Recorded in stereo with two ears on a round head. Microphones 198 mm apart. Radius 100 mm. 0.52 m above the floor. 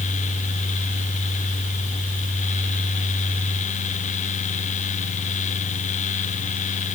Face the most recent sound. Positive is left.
No sound to turn to.